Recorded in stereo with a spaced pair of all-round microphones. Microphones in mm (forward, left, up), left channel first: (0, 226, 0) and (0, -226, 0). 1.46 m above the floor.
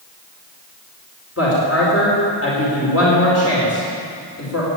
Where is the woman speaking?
30° left (ahead or behind), 4 m.